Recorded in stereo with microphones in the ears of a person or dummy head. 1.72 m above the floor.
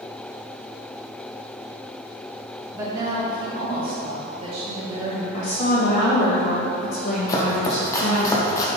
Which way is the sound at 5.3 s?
50° left (ahead or behind).